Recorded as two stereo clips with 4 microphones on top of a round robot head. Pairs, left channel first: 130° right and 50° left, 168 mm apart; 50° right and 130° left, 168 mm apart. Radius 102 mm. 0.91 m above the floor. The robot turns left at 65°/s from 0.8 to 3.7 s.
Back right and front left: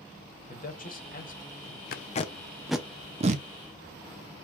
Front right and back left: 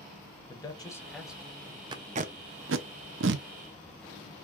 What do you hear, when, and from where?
0.5 s a man speaking: 115° right, 1.3 m; by 1.8 s straight behind, 1.3 m
1.9 s tape being pulled: 165° right, 0.5 m; by 3.5 s 95° left, 0.5 m